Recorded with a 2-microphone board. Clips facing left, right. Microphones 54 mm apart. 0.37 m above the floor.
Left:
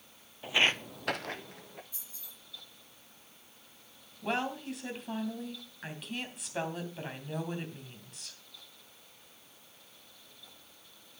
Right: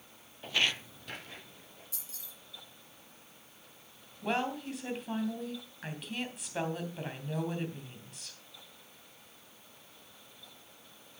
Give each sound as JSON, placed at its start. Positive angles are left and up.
{"t": 0.4, "sound": "footsteps", "side_deg": 5, "distance_m": 0.7}
{"t": 1.9, "sound": "keys jangling", "side_deg": -75, "distance_m": 4.5}
{"t": 4.2, "sound": "a woman speaking", "side_deg": 0, "distance_m": 3.0}